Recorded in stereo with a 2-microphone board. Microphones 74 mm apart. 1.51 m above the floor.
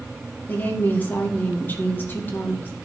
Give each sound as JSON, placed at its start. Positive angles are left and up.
{"t": 0.5, "sound": "a woman speaking", "side_deg": 30, "distance_m": 2.0}